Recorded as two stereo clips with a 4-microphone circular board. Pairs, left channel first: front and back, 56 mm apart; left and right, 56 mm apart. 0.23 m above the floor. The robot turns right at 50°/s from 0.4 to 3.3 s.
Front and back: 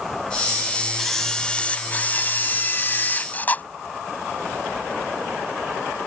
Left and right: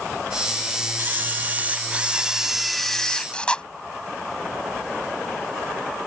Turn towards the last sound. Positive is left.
turn(degrees=30)